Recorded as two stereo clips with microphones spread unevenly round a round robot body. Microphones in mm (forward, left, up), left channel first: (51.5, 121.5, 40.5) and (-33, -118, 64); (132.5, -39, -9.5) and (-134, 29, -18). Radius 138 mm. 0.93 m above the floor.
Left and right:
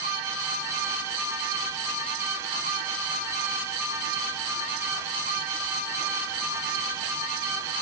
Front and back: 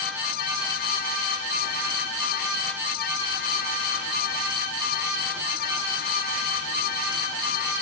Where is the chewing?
No chewing in this recording.